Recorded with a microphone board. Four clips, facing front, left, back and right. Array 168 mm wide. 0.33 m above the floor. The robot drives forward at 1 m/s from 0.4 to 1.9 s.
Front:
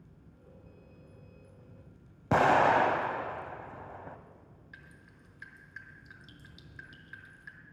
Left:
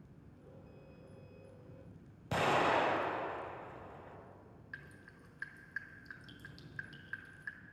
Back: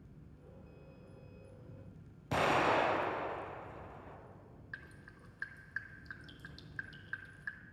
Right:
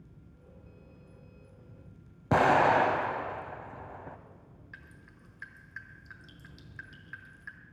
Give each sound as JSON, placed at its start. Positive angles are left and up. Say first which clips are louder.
{"t": 2.3, "sound": "an explosion", "louder": "right 8 dB, front 7 dB", "azimuth_deg": -50, "distance_m": 0.9}
{"t": 4.7, "sound": "dripping", "louder": "left 2 dB, back 5 dB", "azimuth_deg": 180, "distance_m": 1.3}